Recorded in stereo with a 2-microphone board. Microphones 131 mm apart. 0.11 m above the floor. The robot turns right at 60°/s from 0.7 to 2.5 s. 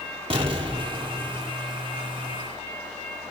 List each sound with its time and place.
0.3 s an explosion: 45° right, 1.4 m; by 1.5 s 5° left, 1.4 m